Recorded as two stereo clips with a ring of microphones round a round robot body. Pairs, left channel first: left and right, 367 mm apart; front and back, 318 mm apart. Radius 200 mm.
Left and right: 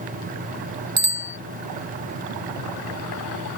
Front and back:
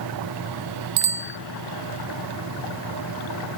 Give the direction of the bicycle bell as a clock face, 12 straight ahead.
5 o'clock.